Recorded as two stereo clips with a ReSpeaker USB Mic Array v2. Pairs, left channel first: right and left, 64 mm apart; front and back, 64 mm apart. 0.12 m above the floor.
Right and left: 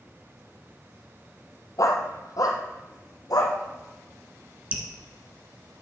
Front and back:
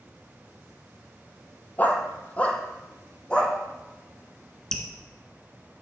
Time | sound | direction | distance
1.8 | a dog barking | 65° right | 1.1 m
4.7 | dripping | 65° left | 1.5 m